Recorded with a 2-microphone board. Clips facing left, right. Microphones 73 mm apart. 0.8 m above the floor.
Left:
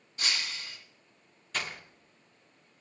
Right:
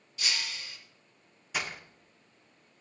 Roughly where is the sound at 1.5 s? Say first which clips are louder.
Right 1 dB; centre.